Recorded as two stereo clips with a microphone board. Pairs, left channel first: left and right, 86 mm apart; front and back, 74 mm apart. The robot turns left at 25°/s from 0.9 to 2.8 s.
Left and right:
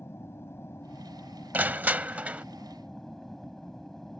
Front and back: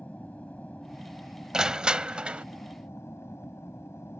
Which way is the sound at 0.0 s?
55° left.